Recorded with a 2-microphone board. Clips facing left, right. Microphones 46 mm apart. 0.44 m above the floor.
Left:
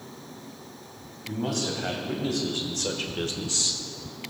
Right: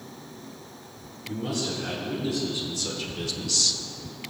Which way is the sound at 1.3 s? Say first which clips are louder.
Left 1 dB; 70° left (ahead or behind).